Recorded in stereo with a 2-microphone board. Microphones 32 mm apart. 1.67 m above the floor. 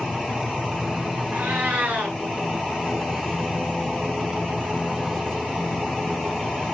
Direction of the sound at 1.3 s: 60° right (ahead or behind).